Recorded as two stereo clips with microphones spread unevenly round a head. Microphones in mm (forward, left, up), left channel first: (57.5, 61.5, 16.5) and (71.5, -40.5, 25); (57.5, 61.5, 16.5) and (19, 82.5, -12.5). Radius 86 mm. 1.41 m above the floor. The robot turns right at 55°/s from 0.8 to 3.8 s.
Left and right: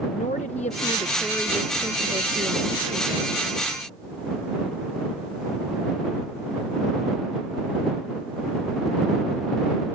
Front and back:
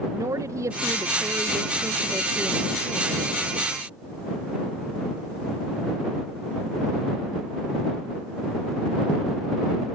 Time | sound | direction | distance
0.1 | a woman speaking | 150° left | ?